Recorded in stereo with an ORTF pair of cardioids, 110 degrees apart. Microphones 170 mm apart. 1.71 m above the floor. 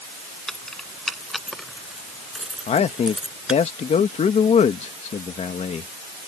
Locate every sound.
0.5 s keys jangling: 5° left; by 3.6 s 5° right
2.7 s a man speaking: 40° left